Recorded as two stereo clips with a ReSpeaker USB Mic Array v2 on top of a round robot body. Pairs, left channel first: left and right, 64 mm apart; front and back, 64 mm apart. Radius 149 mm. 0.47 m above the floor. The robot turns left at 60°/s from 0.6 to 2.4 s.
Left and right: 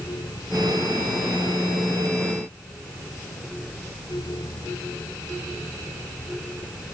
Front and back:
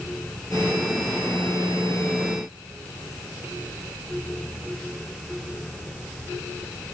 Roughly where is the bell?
No bell in this recording.